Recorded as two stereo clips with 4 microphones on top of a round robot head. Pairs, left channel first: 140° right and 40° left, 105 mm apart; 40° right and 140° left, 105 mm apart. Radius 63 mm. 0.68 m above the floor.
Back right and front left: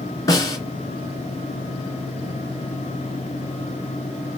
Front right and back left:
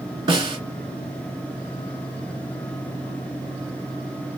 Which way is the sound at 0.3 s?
170° left.